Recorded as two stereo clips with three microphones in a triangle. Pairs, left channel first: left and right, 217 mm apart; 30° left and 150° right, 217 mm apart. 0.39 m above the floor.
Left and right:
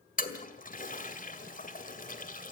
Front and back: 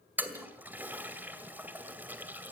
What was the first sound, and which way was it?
A toilet flushing, 130° left.